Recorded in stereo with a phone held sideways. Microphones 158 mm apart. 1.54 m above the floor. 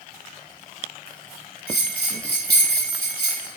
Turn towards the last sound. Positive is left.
turn(degrees=85)